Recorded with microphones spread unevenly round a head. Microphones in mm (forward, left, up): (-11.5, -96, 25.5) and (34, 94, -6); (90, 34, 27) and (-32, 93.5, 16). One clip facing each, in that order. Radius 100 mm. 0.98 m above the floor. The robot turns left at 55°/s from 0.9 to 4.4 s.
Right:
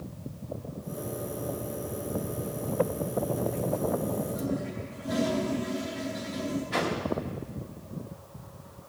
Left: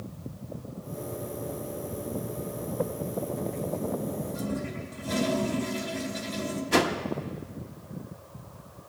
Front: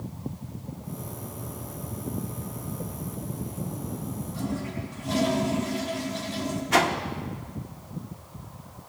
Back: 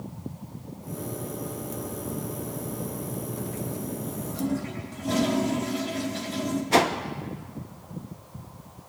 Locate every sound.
4.3 s a toilet flushing: 135° left, 2.5 m; by 6.6 s 130° left, 2.5 m
6.7 s a whoosh: 100° left, 1.0 m